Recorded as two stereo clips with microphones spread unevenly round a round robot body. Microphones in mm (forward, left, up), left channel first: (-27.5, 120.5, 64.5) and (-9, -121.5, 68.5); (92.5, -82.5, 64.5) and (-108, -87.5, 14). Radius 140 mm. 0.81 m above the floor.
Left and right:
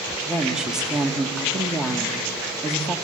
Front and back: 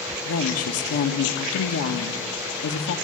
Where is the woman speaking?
Straight ahead, 1.4 m.